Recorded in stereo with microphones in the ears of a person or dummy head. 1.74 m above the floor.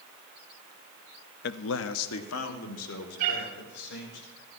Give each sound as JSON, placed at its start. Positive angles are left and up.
{"t": 1.4, "sound": "a man speaking", "side_deg": 55, "distance_m": 0.6}
{"t": 3.2, "sound": "a cat meowing", "side_deg": -50, "distance_m": 5.5}